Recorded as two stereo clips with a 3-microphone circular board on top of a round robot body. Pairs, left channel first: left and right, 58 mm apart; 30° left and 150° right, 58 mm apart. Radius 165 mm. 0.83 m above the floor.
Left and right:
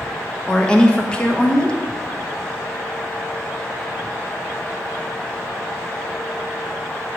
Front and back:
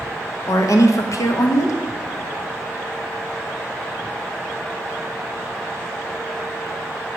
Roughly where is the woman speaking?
Ahead.